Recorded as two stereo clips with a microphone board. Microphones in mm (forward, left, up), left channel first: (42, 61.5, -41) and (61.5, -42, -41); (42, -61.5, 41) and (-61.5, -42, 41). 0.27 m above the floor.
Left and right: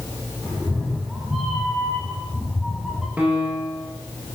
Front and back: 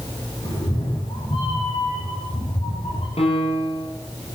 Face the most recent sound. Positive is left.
turn(degrees=-5)